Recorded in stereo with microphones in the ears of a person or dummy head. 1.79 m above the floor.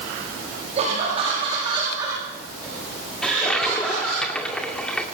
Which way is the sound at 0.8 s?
35° right (ahead or behind).